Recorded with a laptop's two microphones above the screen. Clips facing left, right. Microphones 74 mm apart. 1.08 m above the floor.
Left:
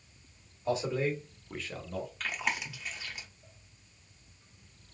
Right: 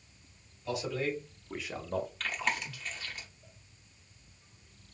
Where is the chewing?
5° left (ahead or behind), 0.6 m.